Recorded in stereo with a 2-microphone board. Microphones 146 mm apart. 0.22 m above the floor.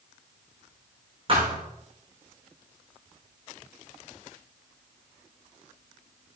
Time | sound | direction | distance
1.3 | a thud | 40° right (ahead or behind) | 5.5 m